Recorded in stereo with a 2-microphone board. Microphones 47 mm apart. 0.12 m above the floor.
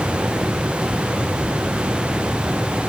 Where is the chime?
I don't hear a chime.